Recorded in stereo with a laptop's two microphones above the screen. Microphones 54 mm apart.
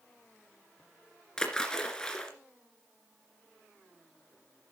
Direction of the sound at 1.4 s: 15° left (ahead or behind).